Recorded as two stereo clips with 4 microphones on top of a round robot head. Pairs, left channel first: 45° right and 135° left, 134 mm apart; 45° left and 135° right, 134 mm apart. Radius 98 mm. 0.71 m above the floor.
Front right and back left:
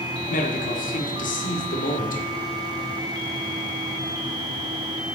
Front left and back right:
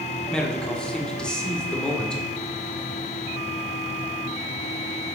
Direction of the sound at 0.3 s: 40° right.